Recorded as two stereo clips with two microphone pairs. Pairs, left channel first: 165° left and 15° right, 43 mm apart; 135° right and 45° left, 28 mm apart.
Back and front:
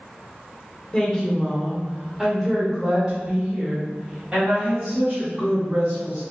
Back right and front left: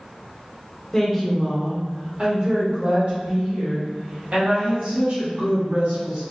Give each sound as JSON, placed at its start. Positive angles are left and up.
{"t": 0.9, "sound": "a woman speaking", "azimuth_deg": -170, "distance_m": 0.8}